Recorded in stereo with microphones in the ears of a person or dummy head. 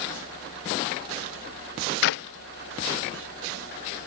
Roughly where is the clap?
Left.